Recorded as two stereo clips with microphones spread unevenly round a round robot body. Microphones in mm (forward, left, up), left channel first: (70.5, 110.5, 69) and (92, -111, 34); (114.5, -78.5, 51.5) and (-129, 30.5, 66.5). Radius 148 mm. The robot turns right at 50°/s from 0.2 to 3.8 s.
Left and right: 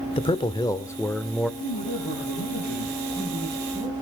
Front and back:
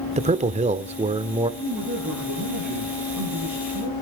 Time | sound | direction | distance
0.2 | a man speaking | 140° left | 0.9 m
1.6 | a man speaking | 80° left | 8 m